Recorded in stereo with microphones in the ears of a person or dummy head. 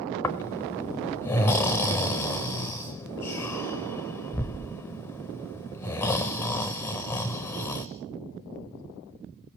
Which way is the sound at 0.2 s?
10° left (ahead or behind).